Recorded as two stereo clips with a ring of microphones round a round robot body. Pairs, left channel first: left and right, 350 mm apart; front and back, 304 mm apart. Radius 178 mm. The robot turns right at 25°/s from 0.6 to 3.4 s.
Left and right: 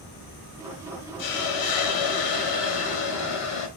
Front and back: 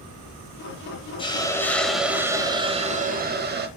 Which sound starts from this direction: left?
A hiss, at 1.2 s.